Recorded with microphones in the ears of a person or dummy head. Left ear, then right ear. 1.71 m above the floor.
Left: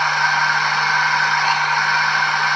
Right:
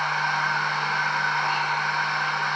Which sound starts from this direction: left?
A machine running, at 0.0 s.